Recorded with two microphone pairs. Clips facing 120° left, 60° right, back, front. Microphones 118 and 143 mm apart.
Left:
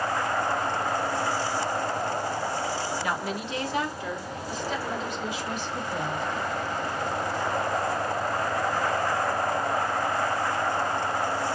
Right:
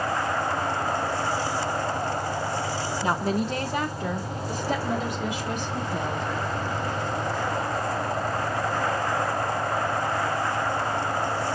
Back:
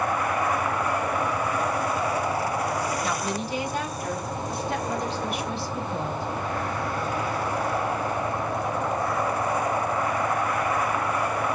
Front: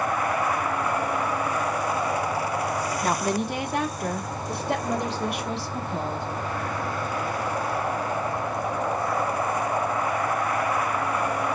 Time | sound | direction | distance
3.0 | a woman speaking | 10° right | 0.6 m